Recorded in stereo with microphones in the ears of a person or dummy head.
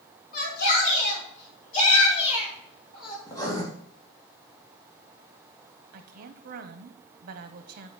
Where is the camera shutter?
No camera shutter in this recording.